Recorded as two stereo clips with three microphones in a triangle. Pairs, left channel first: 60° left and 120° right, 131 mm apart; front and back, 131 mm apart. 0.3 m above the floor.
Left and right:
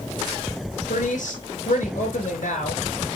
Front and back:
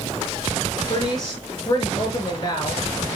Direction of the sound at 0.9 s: 60° left.